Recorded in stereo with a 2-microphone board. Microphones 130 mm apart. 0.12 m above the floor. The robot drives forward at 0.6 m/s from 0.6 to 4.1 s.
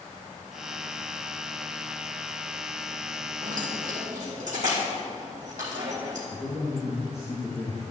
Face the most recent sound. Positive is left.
turn(degrees=-5)  # may be behind; listen again after turning